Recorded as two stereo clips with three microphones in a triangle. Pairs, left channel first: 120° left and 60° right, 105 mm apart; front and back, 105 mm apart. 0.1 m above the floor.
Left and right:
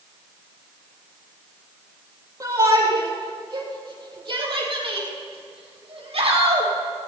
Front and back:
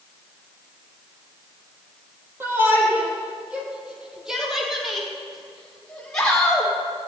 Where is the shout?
115° right, 4 m; by 6.7 s 80° right, 4.5 m.